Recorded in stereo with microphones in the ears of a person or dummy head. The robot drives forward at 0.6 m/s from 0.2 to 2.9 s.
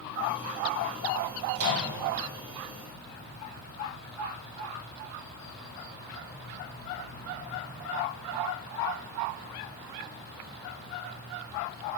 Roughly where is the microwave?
Right.